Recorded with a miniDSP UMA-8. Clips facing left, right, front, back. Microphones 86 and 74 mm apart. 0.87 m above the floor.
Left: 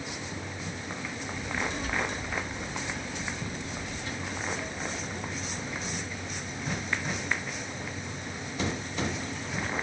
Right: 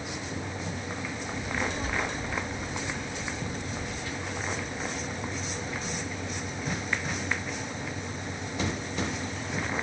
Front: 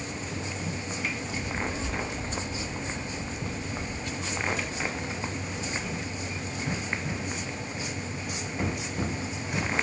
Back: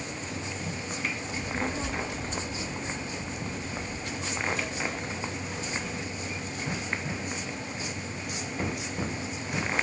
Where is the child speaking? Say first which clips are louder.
Right 1 dB, even; 135° right, 1.1 m; by 6.0 s 145° left, 2.5 m.